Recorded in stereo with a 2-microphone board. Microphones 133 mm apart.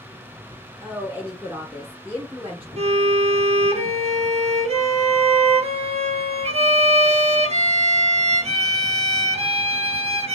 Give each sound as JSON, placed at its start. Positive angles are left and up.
{"t": 0.8, "sound": "a woman speaking", "side_deg": -15, "distance_m": 1.0}
{"t": 2.8, "sound": "a violin", "side_deg": -55, "distance_m": 0.7}